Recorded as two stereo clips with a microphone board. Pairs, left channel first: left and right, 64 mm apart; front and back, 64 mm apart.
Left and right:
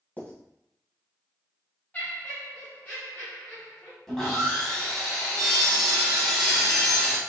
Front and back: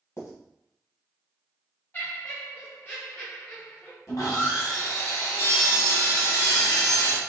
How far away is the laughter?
About 1.7 m.